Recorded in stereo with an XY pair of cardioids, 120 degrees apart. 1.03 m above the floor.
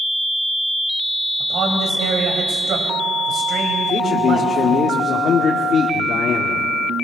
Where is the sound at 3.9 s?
45° left, 2 m.